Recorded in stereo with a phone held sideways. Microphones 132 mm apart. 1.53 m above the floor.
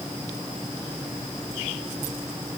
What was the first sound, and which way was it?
Only background noise.